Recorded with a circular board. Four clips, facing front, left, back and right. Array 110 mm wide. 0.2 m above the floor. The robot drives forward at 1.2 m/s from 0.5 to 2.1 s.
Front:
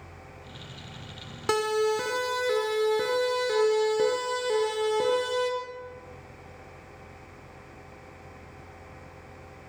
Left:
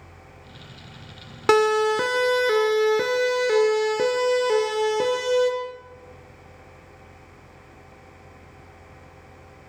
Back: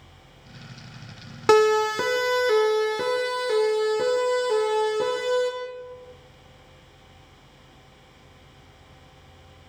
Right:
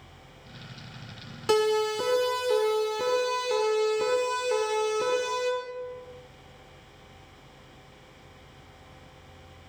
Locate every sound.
1.5 s a siren: 125° left, 3 m; by 5.5 s 85° left, 7 m